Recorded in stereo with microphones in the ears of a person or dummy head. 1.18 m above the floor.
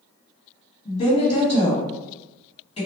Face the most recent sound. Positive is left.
turn(degrees=30)  # may be behind; listen again after turning